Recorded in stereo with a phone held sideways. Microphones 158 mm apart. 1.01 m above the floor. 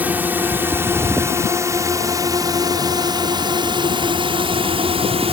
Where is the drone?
10° right (ahead or behind); by 5.3 s 40° right (ahead or behind).